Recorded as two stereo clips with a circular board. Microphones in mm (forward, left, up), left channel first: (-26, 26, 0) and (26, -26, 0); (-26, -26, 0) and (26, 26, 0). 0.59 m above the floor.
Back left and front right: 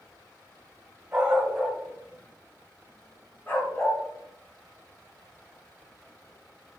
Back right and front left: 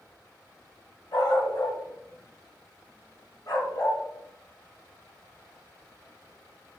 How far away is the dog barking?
About 2.5 m.